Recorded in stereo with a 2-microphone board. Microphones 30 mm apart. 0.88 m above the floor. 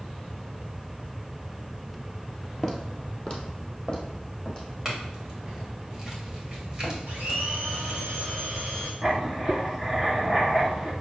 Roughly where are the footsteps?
Centre.